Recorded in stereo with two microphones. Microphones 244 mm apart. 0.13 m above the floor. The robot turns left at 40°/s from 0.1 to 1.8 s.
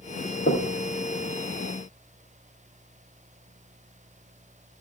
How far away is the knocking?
About 3 m.